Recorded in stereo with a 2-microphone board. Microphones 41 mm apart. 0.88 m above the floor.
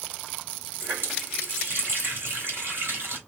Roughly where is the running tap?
Right.